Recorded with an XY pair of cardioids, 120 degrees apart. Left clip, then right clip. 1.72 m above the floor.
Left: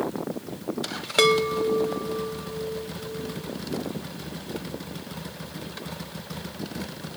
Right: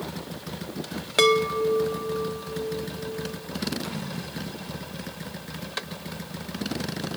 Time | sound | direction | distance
1.2 | a chime | 5° left | 0.9 m